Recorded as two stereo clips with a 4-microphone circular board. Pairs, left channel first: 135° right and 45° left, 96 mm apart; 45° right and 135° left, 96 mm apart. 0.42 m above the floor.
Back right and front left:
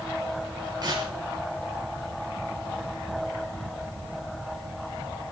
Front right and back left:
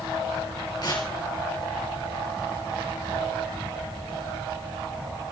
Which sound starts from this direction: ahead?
Tearing paper, at 0.8 s.